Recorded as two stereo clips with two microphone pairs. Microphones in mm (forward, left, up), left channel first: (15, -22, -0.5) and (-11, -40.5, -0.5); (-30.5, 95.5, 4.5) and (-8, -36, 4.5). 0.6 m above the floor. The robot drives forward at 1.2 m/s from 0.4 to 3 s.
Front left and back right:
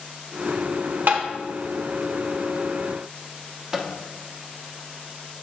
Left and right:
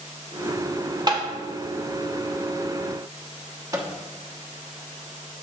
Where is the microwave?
95° right, 0.9 m.